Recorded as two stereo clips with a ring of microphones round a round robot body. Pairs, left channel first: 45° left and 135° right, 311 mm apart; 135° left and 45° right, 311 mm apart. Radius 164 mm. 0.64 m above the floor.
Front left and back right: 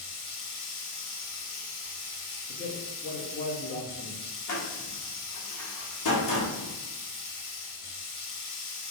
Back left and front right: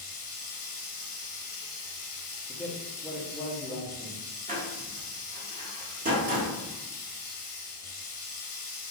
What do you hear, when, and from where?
0.0 s running water: 70° left, 1.8 m
2.5 s a man speaking: 45° left, 1.1 m
4.5 s a door slam: 15° left, 1.2 m